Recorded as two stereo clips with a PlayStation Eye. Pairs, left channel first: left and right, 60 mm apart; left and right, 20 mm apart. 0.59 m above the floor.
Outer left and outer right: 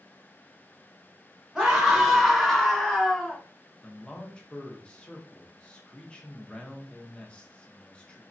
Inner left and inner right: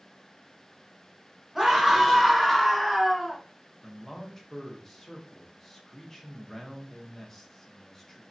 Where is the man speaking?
15° left (ahead or behind), 0.6 m.